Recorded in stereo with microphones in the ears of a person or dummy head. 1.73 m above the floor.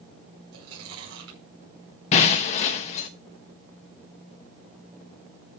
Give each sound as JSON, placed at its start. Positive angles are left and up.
{"t": 0.5, "sound": "chewing", "side_deg": -70, "distance_m": 5.5}
{"t": 2.1, "sound": "breaking glass", "side_deg": 35, "distance_m": 1.1}